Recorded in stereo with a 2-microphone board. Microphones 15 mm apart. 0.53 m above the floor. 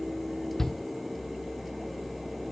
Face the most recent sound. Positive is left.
turn(degrees=30)  # may be behind; listen again after turning